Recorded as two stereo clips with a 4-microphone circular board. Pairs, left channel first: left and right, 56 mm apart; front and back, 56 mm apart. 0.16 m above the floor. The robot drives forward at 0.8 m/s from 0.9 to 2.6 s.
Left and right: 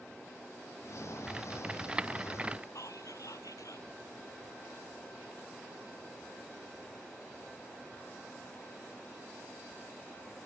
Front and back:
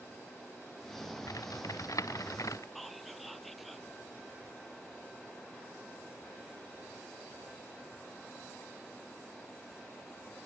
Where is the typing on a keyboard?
15° right; by 2.6 s 20° right.